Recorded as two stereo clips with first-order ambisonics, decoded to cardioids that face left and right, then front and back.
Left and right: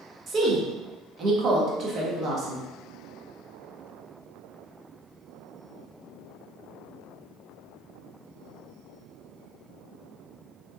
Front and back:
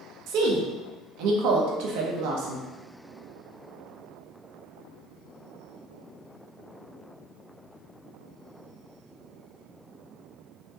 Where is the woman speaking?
155° right, 1.1 m.